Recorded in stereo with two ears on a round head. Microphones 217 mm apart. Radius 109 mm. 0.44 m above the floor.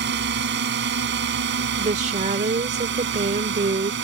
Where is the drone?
45° right (ahead or behind); by 4.0 s 50° right (ahead or behind).